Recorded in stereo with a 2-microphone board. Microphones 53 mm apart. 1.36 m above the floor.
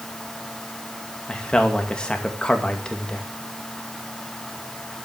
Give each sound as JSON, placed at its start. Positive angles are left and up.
{"t": 1.3, "sound": "a man speaking", "side_deg": 15, "distance_m": 2.0}